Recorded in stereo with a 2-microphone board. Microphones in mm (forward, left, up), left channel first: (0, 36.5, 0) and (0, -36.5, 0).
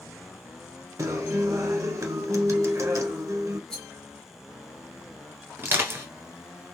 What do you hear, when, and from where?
1.0 s a guitar: 50° right (ahead or behind), 1.0 m
3.7 s a rattle: 10° left (ahead or behind), 1.0 m
5.6 s crushing: 35° right (ahead or behind), 1.3 m